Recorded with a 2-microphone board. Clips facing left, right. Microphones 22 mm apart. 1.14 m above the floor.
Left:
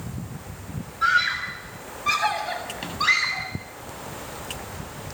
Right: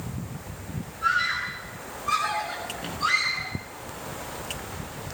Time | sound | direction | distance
1.0 | a scream | 60° left (ahead or behind) | 7 m